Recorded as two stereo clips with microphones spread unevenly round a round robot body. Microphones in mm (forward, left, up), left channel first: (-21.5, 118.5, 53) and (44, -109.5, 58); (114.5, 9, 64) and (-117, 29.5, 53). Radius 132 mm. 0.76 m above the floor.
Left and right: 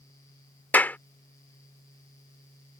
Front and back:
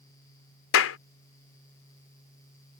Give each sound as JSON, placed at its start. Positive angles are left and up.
{"t": 0.7, "sound": "a clap", "azimuth_deg": 25}